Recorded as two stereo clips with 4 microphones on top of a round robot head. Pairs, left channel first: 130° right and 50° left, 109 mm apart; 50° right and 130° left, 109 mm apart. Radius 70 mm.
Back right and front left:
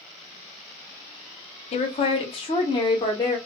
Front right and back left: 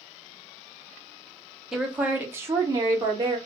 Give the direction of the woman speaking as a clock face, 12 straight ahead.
5 o'clock.